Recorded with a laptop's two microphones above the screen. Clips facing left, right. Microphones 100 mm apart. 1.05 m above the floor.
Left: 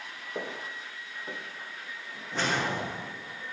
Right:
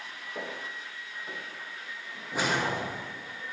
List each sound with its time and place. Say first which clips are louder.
0.3 s footsteps: left 2 dB; 25° left (ahead or behind), 1.1 m
2.3 s a whoosh: right 1 dB; 10° right (ahead or behind), 0.9 m